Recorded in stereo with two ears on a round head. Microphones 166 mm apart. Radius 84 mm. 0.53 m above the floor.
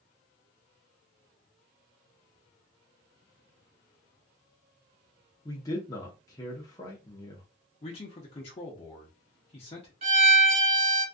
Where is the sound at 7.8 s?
30° left (ahead or behind), 0.8 m.